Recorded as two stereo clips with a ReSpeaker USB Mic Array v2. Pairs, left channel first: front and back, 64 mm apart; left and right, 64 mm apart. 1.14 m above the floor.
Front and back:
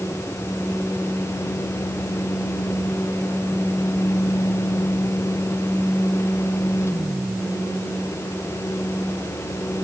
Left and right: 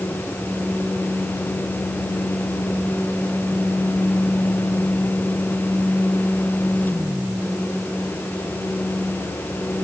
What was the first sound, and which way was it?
Only background noise.